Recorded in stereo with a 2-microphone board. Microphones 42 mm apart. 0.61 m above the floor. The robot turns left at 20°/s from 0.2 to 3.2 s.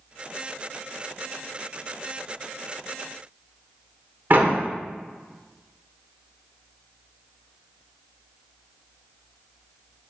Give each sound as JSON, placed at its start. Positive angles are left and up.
{"t": 4.3, "sound": "a door slam", "side_deg": -50, "distance_m": 1.2}